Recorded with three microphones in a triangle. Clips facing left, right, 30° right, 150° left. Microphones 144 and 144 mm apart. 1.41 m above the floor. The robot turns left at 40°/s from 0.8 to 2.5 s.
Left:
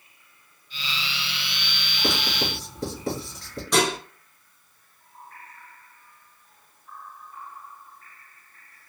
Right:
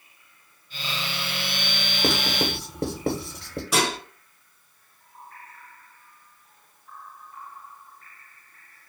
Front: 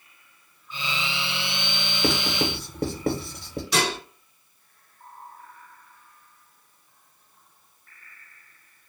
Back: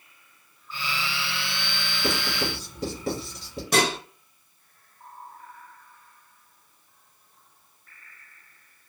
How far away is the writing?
About 0.7 m.